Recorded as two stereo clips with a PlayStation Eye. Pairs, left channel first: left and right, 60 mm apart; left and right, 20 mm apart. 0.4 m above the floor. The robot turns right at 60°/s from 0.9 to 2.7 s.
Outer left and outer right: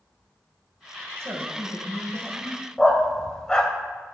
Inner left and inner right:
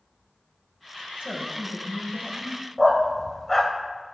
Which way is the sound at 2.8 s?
10° left (ahead or behind).